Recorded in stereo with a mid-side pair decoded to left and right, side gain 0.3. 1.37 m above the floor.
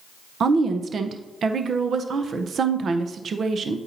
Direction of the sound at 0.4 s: 70° right.